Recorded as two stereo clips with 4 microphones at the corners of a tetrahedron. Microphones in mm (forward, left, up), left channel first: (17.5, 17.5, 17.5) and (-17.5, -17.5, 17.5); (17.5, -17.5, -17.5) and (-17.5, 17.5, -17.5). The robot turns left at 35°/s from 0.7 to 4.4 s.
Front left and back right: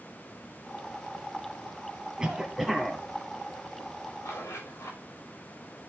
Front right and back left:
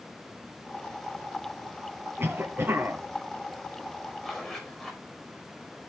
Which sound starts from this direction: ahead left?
A zipper, at 4.2 s.